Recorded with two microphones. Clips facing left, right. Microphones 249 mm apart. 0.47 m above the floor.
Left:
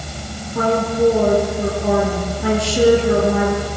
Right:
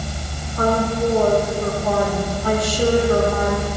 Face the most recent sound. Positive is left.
turn(degrees=80)